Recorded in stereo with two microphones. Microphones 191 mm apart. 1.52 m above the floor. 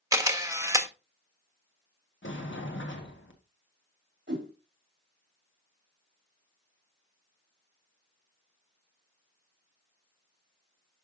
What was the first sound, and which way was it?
A camera shutter, 15° right (ahead or behind).